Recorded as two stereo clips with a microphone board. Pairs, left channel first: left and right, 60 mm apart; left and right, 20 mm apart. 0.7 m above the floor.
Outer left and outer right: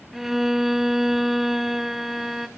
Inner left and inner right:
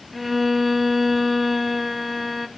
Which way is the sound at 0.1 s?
5° right (ahead or behind).